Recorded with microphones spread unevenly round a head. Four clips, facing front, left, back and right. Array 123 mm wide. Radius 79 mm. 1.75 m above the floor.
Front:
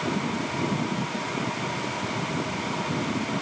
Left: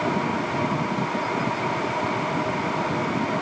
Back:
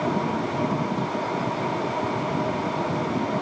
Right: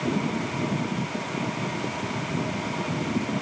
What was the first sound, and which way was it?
Only background noise.